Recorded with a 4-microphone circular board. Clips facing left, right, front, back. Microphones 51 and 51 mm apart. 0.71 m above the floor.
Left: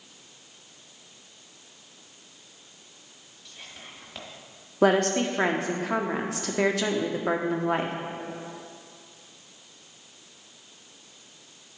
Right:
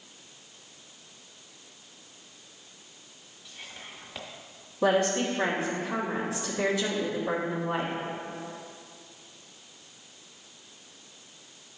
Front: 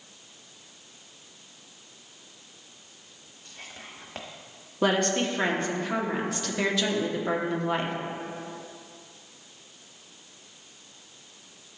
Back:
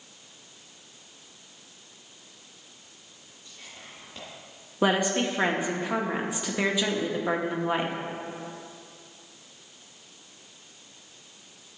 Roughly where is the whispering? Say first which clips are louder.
Right 1 dB, front 3 dB; ahead.